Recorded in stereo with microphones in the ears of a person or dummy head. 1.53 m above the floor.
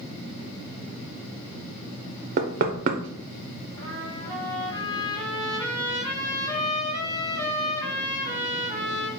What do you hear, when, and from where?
2.4 s knocking: 45° right (ahead or behind), 0.5 m
3.8 s a trumpet: 20° left (ahead or behind), 1.5 m